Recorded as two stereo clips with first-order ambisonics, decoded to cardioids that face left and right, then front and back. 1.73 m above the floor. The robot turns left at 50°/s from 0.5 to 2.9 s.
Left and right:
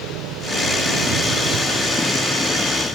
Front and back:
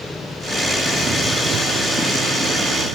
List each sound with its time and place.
0.0 s an engine running: 80° right; by 3.0 s 160° left